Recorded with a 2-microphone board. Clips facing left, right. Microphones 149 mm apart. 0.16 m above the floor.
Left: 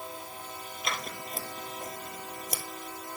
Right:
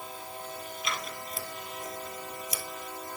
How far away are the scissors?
About 1.2 m.